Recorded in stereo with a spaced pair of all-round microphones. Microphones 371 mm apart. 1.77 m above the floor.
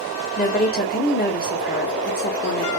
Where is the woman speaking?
25° left (ahead or behind), 0.8 m.